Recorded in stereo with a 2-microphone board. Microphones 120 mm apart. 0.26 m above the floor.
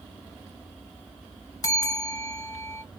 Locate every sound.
1.6 s a bell: 30° left (ahead or behind), 1.0 m